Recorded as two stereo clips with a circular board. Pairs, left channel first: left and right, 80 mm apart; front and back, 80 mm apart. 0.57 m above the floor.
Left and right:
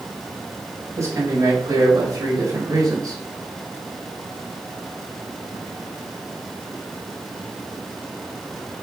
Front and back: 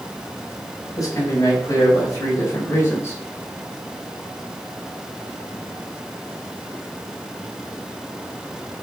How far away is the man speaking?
About 4 m.